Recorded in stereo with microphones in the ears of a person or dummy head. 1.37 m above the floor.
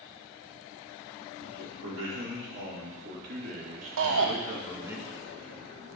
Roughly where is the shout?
Right.